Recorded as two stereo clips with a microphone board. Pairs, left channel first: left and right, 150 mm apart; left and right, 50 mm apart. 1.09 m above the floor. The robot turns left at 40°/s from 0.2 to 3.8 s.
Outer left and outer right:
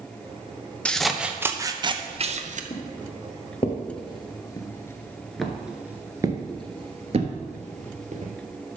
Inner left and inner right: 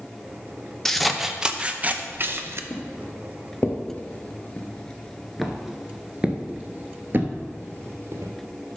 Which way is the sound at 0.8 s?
10° left.